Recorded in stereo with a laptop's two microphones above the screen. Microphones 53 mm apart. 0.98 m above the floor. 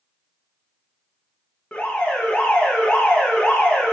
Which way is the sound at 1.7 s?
25° left (ahead or behind).